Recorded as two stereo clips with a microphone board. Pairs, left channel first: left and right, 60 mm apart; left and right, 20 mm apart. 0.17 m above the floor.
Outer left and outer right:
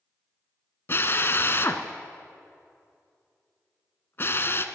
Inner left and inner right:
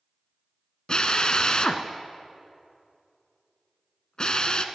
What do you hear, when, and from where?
0.9 s a drill: 45° left (ahead or behind), 0.8 m